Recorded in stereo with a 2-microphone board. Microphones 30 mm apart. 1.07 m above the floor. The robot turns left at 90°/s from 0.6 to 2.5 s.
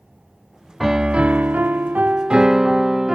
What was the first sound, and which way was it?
A piano, 10° right.